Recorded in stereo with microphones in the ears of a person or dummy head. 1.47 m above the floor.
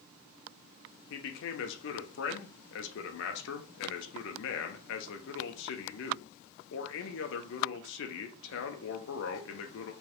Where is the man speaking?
70° left (ahead or behind), 1.0 m.